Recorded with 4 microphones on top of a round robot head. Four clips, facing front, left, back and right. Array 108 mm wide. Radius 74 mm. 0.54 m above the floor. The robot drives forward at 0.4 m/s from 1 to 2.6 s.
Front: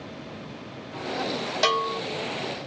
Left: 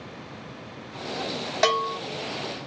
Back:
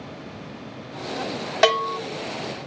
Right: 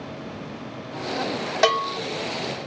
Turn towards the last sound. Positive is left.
turn(degrees=-175)